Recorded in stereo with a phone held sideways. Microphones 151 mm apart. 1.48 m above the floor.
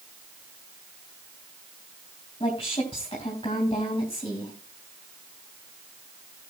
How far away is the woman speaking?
About 2.5 m.